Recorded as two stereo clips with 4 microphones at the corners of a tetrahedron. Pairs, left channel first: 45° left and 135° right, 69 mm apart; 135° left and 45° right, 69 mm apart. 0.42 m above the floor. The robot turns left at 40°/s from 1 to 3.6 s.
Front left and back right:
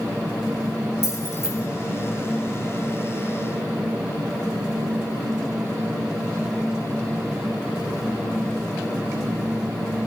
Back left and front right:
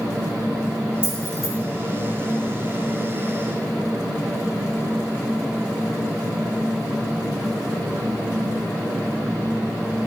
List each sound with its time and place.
1.0 s keys jangling: 15° left, 4.5 m; by 1.5 s 5° right, 4.5 m